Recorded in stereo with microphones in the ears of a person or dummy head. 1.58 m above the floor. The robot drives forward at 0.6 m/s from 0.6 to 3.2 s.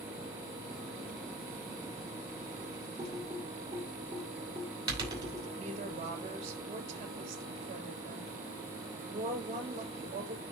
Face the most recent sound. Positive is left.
turn(degrees=-40)  # may be behind; listen again after turning